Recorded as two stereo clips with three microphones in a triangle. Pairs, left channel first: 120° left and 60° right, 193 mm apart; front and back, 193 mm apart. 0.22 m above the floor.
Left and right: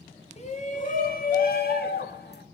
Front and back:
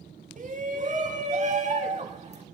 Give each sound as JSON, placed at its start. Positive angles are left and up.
{"t": 0.4, "sound": "a shout", "azimuth_deg": 160, "distance_m": 2.0}